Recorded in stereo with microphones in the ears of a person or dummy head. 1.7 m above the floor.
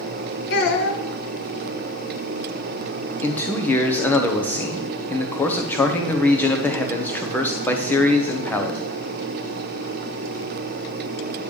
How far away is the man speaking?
About 1.0 m.